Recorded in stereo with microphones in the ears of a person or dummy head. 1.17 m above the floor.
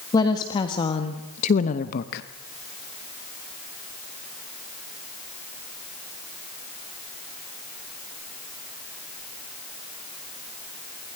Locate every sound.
0.1 s a woman speaking: 25° left (ahead or behind), 1.8 m; by 2.2 s 60° left (ahead or behind), 0.9 m